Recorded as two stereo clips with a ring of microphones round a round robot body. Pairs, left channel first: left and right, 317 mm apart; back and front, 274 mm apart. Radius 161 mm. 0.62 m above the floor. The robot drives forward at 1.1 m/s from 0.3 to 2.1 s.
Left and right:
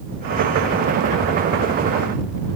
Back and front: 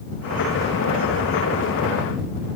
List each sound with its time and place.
Only background noise.